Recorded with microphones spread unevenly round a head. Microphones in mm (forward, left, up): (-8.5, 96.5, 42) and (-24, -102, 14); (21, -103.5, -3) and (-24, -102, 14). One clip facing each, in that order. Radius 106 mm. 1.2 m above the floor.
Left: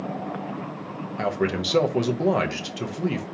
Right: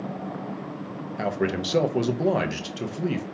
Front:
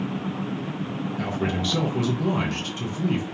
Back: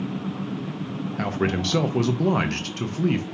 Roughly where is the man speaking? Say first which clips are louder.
Left 1 dB, back 3 dB; behind.